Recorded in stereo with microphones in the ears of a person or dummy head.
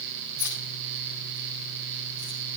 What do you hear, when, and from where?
0.4 s keys jangling: 55° right (ahead or behind), 6.5 m